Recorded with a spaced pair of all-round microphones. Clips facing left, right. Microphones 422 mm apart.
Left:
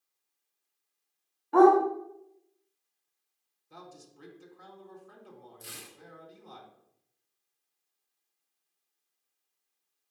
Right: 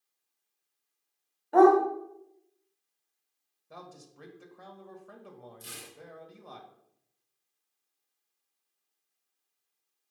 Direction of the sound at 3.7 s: 70° right (ahead or behind).